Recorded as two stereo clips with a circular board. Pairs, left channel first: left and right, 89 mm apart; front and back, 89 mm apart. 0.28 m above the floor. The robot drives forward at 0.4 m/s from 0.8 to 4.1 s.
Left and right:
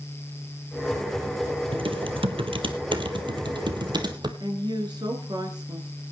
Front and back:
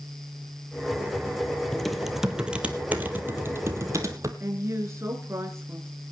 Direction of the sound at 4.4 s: 120° right.